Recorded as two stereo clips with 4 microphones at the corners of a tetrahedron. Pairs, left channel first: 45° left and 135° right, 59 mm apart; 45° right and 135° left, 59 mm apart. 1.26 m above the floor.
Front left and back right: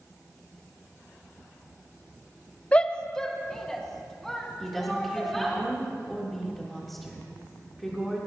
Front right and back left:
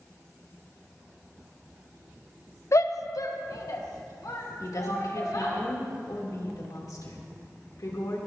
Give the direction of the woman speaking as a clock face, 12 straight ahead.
1 o'clock.